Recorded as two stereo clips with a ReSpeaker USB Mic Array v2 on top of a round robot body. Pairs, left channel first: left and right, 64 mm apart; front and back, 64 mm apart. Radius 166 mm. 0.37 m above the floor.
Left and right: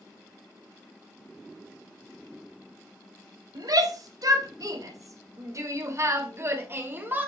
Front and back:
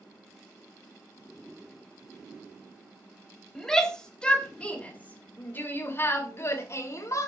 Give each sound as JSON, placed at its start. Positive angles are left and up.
{"t": 3.5, "sound": "a shout", "azimuth_deg": -80, "distance_m": 3.5}